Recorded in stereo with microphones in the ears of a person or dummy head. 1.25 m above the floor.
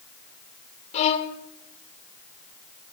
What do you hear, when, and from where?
0.9 s a violin: 35° left (ahead or behind), 1.9 m